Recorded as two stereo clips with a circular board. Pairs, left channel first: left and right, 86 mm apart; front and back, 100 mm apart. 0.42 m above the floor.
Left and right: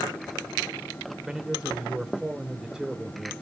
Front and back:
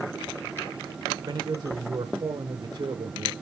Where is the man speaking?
170° right, 1.2 m.